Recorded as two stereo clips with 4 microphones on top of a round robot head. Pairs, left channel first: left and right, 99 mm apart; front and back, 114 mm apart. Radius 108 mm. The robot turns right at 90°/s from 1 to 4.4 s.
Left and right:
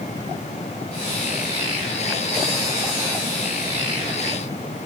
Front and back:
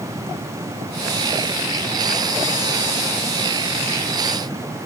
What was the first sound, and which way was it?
Only background noise.